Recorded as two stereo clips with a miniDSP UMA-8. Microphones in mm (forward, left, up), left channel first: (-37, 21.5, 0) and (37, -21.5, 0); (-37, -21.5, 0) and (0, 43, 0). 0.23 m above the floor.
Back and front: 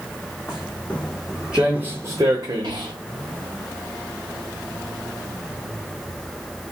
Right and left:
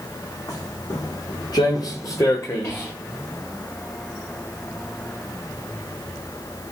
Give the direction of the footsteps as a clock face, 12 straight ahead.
5 o'clock.